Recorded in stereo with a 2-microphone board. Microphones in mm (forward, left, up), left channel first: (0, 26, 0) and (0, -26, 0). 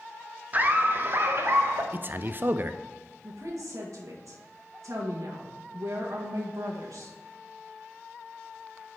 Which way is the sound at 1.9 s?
40° right (ahead or behind).